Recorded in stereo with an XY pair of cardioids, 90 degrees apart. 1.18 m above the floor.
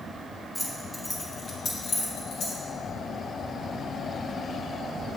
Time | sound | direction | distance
0.6 | keys jangling | 5° right | 1.4 m